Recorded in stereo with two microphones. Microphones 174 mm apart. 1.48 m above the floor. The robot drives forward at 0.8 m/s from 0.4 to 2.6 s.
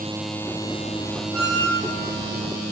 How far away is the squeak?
About 4.5 m.